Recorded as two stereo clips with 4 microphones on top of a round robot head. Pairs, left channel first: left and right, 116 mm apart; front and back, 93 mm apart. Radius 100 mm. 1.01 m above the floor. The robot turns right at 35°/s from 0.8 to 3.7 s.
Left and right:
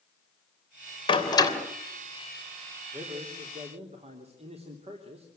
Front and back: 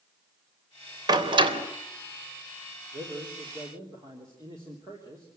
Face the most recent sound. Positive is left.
turn(degrees=-120)